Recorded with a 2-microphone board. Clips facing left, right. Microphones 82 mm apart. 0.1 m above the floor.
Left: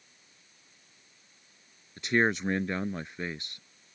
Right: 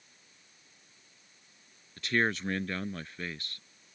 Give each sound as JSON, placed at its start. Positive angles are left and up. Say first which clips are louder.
{"t": 2.0, "sound": "a man speaking", "louder": "left 3 dB", "side_deg": 20}